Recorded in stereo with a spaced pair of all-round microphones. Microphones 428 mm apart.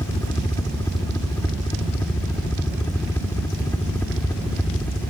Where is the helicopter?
10° left (ahead or behind); by 5.1 s 5° left (ahead or behind).